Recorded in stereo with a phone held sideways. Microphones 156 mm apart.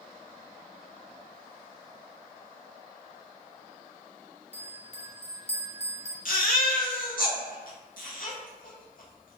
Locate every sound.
4.5 s a bell: 40° left (ahead or behind), 0.6 m
6.2 s a baby crying: 65° left (ahead or behind), 0.8 m